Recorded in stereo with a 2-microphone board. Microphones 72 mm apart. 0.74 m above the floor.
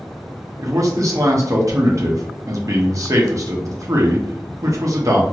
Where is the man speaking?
50° right (ahead or behind), 0.8 m.